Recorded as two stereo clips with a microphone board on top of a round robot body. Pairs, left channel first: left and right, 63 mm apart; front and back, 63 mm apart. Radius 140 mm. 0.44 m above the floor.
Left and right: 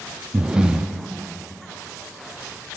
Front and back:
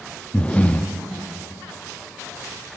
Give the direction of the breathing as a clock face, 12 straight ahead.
1 o'clock.